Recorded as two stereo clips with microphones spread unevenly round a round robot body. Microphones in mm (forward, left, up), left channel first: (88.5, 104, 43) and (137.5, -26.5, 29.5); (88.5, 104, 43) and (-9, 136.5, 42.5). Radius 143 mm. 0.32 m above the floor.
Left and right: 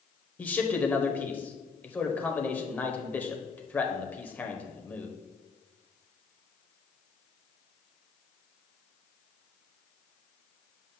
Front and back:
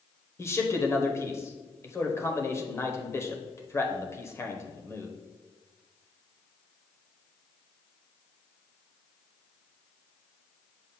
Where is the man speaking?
30° left, 1.2 m.